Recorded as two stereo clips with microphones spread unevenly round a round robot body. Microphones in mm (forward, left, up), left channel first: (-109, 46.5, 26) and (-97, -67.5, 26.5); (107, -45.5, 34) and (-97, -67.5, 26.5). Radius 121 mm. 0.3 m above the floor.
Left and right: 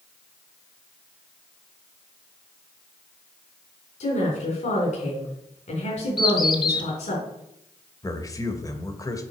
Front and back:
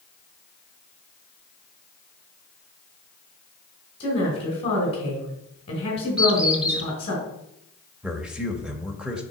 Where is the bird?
105° left, 1.3 m.